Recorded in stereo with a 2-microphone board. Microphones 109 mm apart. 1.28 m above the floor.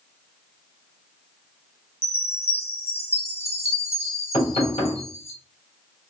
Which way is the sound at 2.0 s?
65° left (ahead or behind).